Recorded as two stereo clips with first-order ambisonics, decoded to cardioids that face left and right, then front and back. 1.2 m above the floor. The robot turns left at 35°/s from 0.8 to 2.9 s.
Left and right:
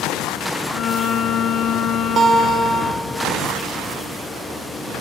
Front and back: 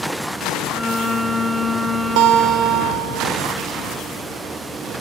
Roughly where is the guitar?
Behind right.